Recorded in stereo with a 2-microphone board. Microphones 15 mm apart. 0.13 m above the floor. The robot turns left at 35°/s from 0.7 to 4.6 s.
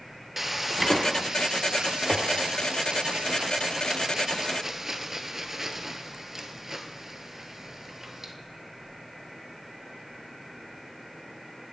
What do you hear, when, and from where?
0.4 s frying: 20° right, 0.6 m; by 8.3 s 155° right, 0.6 m